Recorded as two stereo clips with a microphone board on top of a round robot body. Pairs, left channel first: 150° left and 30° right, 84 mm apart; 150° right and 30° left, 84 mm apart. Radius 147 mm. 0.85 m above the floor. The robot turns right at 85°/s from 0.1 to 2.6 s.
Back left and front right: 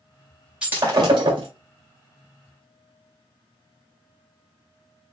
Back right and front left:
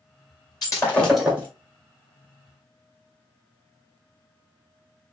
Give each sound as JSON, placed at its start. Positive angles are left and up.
{"t": 0.6, "sound": "breaking glass", "azimuth_deg": -110, "distance_m": 2.0}